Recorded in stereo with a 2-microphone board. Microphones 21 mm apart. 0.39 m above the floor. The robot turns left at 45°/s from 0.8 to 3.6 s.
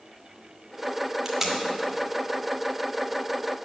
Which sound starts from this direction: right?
Tape being pulled, at 1.2 s.